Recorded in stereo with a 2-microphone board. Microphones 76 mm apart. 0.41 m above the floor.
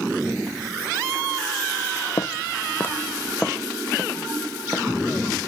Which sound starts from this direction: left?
Footsteps, at 2.2 s.